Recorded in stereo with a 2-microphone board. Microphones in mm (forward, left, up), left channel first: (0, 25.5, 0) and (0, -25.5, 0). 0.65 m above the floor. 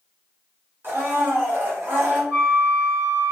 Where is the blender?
40° right (ahead or behind), 1.4 m.